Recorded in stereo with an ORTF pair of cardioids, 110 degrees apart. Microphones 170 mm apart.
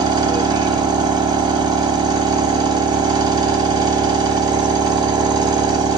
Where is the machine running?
25° right, 0.7 m.